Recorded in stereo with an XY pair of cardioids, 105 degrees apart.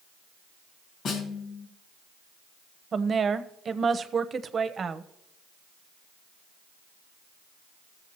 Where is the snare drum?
70° left, 1.9 m.